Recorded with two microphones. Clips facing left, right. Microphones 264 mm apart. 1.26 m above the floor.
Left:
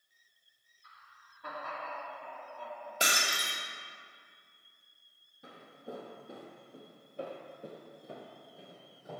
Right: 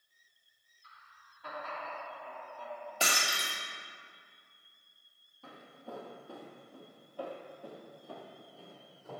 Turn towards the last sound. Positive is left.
turn(degrees=15)  # may be behind; listen again after turning